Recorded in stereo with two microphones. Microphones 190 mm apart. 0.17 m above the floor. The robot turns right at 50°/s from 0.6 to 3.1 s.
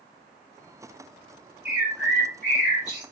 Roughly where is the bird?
Ahead right.